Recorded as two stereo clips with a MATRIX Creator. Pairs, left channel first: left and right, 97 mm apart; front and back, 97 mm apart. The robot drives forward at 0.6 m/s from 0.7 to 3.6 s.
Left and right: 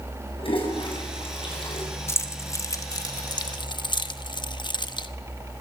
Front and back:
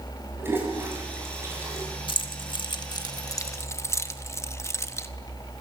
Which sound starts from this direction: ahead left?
Keys jangling, at 2.1 s.